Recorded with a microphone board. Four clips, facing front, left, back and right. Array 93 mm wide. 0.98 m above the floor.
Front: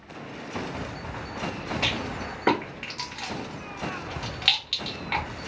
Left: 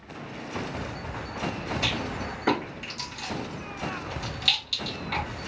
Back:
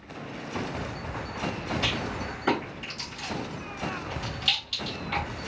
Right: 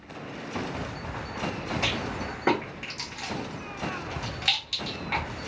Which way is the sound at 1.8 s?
25° right.